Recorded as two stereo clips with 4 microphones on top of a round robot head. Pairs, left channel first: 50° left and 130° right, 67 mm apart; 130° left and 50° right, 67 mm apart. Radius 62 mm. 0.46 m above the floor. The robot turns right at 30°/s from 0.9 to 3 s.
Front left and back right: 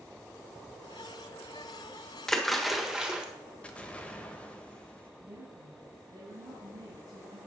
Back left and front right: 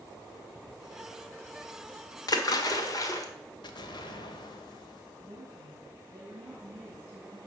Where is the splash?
135° left, 1.3 m; by 3.3 s 155° left, 1.3 m.